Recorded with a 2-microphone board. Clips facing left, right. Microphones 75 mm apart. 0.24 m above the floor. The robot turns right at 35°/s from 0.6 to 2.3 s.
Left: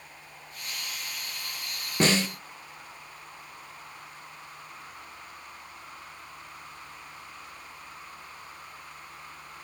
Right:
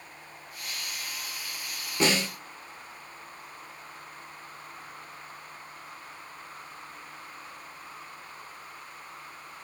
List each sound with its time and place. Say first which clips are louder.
2.0 s a snare drum: left 1 dB; 35° left (ahead or behind), 1.3 m; by 2.3 s 25° left (ahead or behind), 1.3 m